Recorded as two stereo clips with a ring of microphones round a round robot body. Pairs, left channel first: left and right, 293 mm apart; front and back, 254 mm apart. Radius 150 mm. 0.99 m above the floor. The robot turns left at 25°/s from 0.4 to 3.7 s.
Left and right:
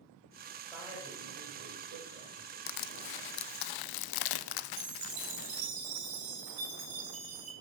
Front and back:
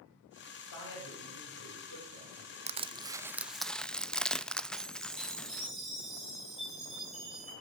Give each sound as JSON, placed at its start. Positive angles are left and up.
{"t": 0.6, "sound": "a man speaking", "azimuth_deg": 0, "distance_m": 5.0}
{"t": 2.7, "sound": "crushing", "azimuth_deg": 115, "distance_m": 0.7}
{"t": 4.8, "sound": "a chime", "azimuth_deg": -90, "distance_m": 4.5}